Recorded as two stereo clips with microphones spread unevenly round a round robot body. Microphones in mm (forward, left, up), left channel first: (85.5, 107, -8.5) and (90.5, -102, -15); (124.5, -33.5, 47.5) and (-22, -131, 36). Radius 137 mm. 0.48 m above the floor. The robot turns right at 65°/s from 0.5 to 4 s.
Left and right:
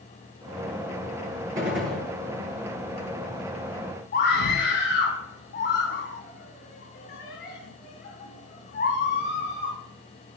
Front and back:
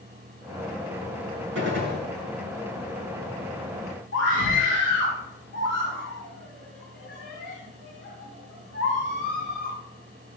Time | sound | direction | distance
1.6 | a gunshot | 150° right | 8 m
4.1 | a scream | 55° left | 4 m